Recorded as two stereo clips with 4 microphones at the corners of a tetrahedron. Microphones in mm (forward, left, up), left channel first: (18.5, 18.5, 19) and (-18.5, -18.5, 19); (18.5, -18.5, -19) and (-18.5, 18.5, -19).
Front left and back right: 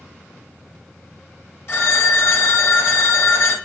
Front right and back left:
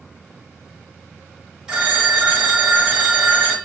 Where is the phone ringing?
60° left, 1.7 m.